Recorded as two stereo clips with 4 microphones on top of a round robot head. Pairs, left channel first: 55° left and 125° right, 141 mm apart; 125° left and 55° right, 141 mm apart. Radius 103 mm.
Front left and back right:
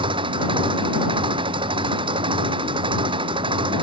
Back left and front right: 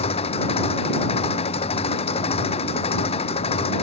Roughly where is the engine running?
Behind.